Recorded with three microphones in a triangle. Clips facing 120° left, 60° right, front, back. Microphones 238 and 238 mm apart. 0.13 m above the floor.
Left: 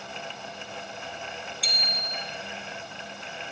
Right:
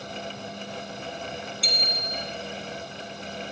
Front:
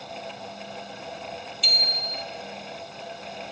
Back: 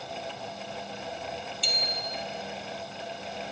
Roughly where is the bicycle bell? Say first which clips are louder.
Right 5 dB, even; behind right.